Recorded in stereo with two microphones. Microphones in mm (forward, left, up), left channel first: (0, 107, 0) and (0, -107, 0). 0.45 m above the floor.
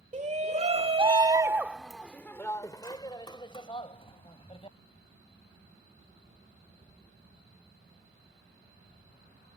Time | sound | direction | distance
0.1 | a shout | 35° right (ahead or behind) | ?